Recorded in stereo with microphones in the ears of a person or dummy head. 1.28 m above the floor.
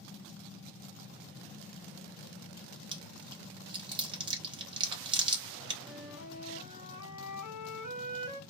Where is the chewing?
25° right (ahead or behind), 1.1 m.